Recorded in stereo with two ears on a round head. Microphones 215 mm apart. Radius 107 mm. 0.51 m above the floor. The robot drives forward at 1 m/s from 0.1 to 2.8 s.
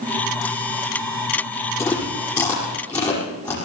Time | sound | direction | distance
1.8 | chewing | 10° left (ahead or behind) | 5 m